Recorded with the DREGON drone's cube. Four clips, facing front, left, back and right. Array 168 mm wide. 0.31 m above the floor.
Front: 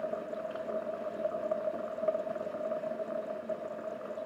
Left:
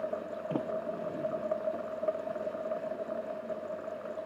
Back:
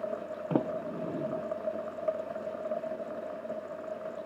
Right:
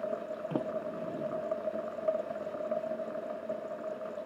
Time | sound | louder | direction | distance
0.5 | a sliding door | left 2 dB, back 9 dB | straight behind | ?